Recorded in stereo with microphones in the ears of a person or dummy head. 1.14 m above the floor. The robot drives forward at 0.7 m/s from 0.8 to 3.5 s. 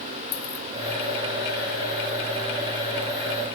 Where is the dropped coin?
80° left, 2.5 m.